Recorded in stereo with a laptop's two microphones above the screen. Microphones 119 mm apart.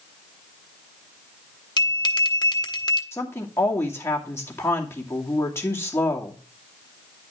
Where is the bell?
35° left (ahead or behind), 1.0 m.